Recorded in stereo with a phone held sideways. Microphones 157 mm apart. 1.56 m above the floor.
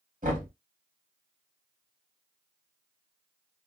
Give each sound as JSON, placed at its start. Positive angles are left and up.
{"t": 0.2, "sound": "knocking", "side_deg": -60, "distance_m": 1.8}